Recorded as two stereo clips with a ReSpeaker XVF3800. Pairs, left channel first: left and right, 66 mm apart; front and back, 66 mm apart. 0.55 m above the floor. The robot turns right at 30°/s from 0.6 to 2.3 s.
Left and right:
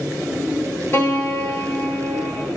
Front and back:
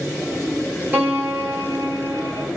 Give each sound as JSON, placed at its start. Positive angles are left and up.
{"t": 0.9, "sound": "a piano", "azimuth_deg": 125, "distance_m": 1.6}